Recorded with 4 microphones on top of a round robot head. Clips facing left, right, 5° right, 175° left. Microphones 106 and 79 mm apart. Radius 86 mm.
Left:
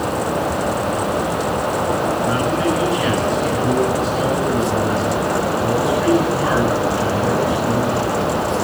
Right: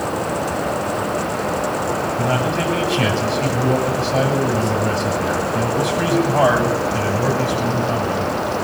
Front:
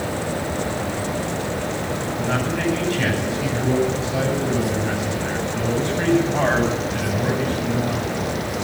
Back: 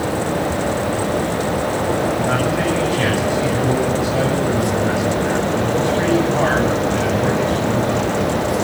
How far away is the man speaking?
About 8.5 m.